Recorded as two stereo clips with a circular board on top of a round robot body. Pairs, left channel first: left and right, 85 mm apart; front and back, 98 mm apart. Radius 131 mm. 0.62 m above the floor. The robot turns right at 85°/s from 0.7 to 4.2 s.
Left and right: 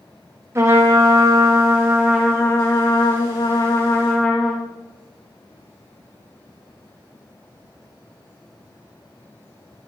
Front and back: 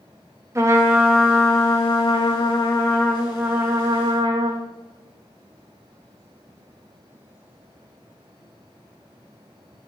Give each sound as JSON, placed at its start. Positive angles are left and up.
{"t": 0.6, "sound": "a trumpet", "azimuth_deg": -130, "distance_m": 1.6}